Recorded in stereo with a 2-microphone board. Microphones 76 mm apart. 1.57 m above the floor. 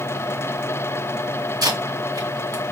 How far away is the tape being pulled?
About 2 m.